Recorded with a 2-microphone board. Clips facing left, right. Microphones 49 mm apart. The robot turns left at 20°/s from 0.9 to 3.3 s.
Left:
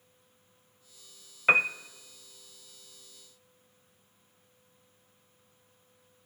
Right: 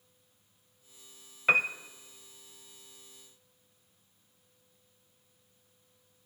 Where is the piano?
15° left (ahead or behind), 0.5 m; by 1.7 s 20° left (ahead or behind), 0.5 m.